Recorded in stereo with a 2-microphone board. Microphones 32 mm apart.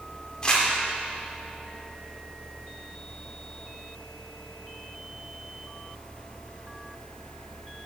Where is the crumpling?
25° left (ahead or behind), 1.3 m.